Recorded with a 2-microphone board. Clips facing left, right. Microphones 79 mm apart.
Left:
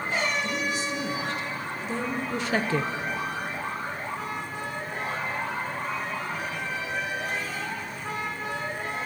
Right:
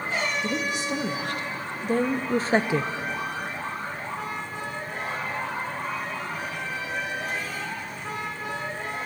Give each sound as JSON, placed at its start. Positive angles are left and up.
{"t": 0.4, "sound": "a woman speaking", "side_deg": -65, "distance_m": 3.0}